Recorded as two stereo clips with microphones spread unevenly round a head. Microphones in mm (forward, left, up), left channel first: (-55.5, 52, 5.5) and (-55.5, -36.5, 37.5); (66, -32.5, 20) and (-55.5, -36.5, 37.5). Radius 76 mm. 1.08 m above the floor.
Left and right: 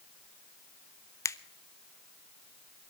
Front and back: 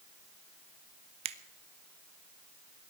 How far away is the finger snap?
About 0.8 m.